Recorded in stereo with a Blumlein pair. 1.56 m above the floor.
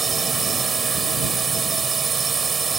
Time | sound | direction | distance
0.0 | a drone | 15° right | ?